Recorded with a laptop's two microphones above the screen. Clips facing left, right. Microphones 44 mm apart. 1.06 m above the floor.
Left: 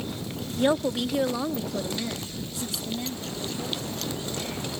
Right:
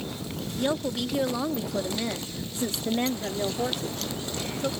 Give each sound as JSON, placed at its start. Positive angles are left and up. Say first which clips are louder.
{"t": 0.6, "sound": "a woman speaking", "louder": "left 4 dB", "side_deg": 20}